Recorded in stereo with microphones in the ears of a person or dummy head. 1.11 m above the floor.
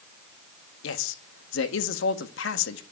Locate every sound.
0.8 s a man speaking: 70° left (ahead or behind), 1.4 m